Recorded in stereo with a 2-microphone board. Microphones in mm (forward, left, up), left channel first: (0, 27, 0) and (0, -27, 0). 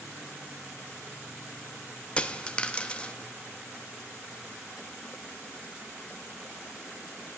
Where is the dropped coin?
25° left (ahead or behind), 0.5 m.